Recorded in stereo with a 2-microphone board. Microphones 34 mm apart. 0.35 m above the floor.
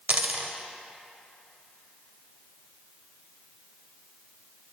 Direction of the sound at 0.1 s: 50° right (ahead or behind).